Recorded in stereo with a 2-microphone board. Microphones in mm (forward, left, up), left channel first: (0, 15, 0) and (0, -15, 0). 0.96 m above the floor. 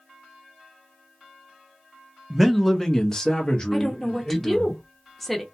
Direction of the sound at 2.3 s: 5° right (ahead or behind).